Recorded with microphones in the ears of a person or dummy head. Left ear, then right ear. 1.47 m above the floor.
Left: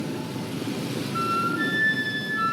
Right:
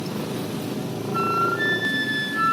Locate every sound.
1.1 s a flute: 10° right (ahead or behind), 2.5 m